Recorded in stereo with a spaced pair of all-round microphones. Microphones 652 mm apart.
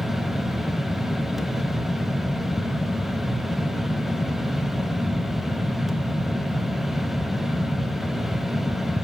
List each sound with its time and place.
0.0 s a fan: centre (ahead or behind), 0.7 m